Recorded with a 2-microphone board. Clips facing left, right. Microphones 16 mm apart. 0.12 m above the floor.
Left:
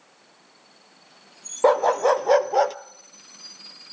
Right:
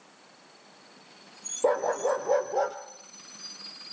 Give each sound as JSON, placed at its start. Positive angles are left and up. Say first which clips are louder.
{"t": 1.6, "sound": "a dog barking", "louder": "left 7 dB", "side_deg": 55, "distance_m": 1.0}